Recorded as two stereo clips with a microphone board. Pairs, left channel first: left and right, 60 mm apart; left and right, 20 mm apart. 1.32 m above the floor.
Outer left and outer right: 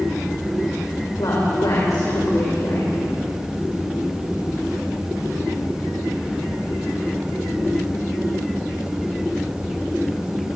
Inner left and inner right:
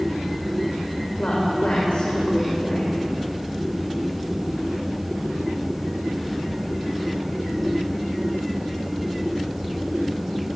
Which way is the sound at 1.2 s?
75° left (ahead or behind).